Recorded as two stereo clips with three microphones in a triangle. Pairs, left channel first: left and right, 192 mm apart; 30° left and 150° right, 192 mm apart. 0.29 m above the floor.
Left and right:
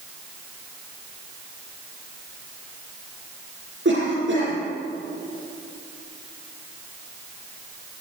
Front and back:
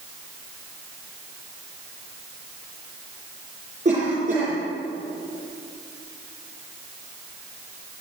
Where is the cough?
100° right, 5 m.